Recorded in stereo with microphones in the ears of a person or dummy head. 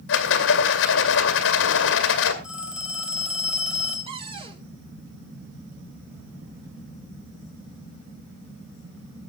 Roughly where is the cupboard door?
Right.